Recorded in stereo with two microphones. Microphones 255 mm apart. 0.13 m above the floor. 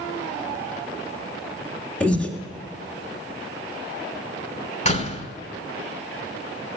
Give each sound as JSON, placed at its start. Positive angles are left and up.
{"t": 2.0, "sound": "breathing", "side_deg": 5, "distance_m": 1.8}
{"t": 4.8, "sound": "a door slam", "side_deg": 30, "distance_m": 1.3}